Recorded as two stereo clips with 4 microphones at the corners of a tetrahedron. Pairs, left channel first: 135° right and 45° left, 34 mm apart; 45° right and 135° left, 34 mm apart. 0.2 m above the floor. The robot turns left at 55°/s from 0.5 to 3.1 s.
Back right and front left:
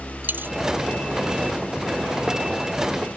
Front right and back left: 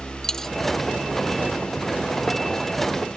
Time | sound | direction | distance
0.2 | a dropped coin | 30° left | ?